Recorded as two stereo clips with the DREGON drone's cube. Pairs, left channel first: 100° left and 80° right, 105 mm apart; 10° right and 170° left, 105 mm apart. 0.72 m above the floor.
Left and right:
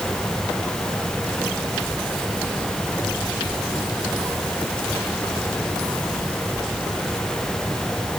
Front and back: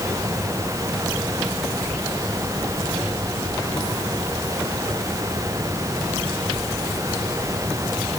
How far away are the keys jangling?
I don't hear keys jangling.